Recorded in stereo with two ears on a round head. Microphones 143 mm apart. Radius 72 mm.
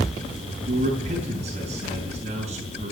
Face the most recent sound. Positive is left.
turn(degrees=-40)  # may be behind; listen again after turning